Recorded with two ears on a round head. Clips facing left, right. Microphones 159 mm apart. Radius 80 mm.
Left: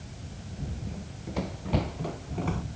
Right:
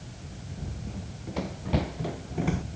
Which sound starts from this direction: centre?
Running footsteps, at 0.9 s.